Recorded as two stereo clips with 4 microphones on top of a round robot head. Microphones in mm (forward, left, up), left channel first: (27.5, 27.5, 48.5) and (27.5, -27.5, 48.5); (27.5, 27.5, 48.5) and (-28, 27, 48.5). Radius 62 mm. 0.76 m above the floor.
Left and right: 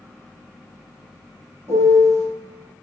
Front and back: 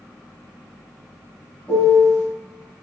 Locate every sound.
1.7 s a piano: 65° right, 0.9 m